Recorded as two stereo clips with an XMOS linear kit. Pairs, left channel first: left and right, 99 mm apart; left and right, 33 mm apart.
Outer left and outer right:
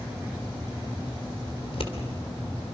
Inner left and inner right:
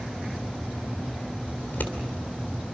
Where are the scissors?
65° left (ahead or behind), 3 m.